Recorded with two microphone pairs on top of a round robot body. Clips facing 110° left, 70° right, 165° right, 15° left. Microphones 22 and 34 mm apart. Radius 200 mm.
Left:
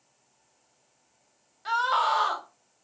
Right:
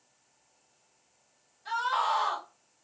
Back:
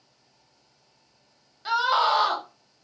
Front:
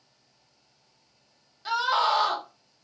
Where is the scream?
120° left, 1.2 m.